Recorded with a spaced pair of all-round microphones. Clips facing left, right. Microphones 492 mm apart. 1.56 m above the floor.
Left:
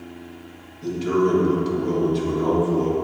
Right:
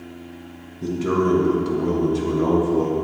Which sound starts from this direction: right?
A man speaking, at 0.8 s.